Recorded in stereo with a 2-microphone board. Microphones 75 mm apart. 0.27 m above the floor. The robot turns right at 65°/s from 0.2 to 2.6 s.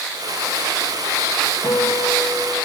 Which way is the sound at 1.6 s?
145° left.